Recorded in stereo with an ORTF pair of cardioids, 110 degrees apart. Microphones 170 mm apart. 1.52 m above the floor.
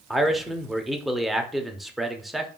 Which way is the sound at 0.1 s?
Straight ahead.